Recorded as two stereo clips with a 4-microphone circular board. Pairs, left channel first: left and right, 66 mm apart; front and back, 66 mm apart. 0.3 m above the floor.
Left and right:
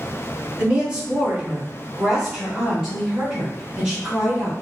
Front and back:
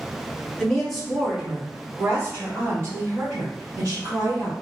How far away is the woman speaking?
About 1.2 m.